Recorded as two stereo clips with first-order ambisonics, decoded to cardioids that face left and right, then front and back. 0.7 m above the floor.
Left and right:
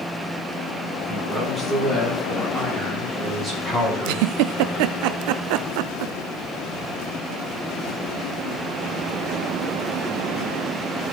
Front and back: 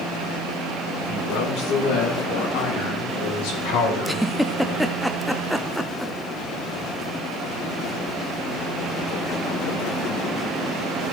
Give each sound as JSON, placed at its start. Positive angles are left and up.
{"t": 1.1, "sound": "a man speaking", "azimuth_deg": 5, "distance_m": 7.5}
{"t": 4.0, "sound": "a giggle", "azimuth_deg": -90, "distance_m": 0.5}